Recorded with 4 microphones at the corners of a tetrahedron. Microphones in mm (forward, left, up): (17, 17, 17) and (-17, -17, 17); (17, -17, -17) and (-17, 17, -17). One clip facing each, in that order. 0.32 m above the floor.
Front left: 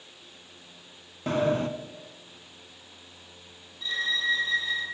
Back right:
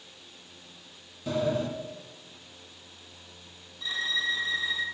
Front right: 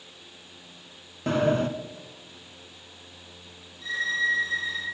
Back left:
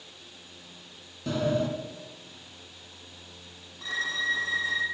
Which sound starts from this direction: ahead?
A sliding door, at 1.3 s.